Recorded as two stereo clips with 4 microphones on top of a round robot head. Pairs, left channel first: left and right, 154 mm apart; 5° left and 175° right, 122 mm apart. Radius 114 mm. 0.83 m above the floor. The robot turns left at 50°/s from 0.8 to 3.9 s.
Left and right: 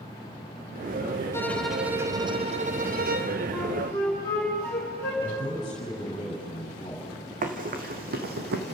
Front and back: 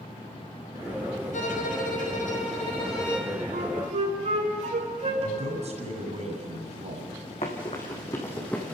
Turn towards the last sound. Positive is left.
turn(degrees=-85)